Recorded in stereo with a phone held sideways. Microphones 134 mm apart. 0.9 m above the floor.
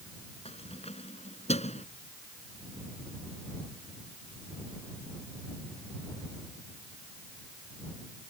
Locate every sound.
0.5 s keys jangling: 50° left (ahead or behind); by 1.9 s 55° left (ahead or behind)